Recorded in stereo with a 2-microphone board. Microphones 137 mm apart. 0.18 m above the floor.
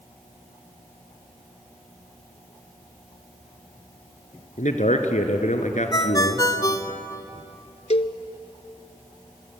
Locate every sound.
4.6 s a man speaking: 65° left (ahead or behind), 2.5 m
5.9 s a ringtone: 25° left (ahead or behind), 1.0 m
7.9 s a cowbell: 50° left (ahead or behind), 0.8 m